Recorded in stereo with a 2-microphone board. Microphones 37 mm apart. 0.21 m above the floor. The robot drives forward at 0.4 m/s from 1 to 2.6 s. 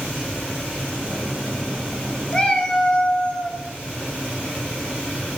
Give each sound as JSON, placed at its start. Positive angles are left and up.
{"t": 2.3, "sound": "a cat meowing", "side_deg": 25, "distance_m": 0.5}